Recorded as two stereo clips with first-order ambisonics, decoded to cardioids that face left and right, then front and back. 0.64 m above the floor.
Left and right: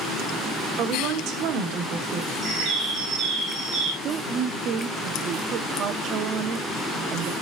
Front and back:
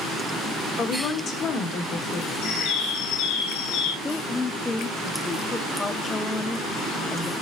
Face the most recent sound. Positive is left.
turn(degrees=-70)